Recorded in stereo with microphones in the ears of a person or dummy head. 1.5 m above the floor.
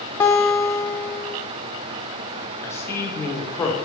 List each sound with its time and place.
0.2 s a guitar: 5° left (ahead or behind), 0.6 m
2.6 s a man speaking: 15° left (ahead or behind), 1.0 m